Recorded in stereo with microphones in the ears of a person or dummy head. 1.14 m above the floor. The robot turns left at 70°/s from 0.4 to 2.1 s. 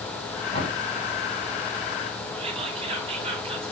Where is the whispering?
30° right (ahead or behind), 0.8 m.